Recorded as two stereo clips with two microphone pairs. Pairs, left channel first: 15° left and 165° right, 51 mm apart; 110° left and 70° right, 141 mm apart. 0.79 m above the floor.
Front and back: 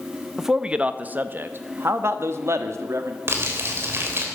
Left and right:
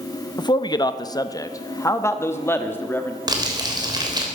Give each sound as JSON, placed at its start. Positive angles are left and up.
{"t": 0.4, "sound": "a man speaking", "azimuth_deg": 115, "distance_m": 0.7}
{"t": 3.3, "sound": "crumpling", "azimuth_deg": -130, "distance_m": 3.0}